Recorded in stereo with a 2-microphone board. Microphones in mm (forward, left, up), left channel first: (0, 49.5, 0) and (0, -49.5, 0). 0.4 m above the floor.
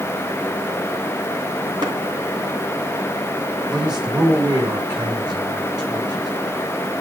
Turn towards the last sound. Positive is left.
turn(degrees=-50)  # may be behind; listen again after turning